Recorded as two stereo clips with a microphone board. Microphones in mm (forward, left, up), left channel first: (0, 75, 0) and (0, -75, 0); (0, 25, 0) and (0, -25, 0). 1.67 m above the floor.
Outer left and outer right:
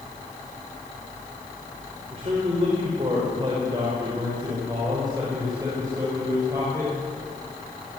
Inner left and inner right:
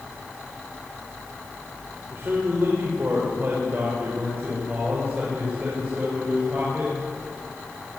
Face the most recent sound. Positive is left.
turn(degrees=-20)  # may be behind; listen again after turning